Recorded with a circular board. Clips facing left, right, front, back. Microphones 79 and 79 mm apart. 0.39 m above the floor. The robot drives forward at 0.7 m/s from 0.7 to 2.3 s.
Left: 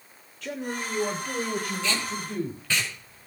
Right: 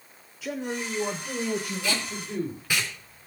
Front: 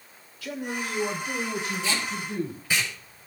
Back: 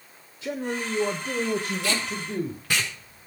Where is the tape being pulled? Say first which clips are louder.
Left 1 dB, back 1 dB; 165° right, 4.5 m.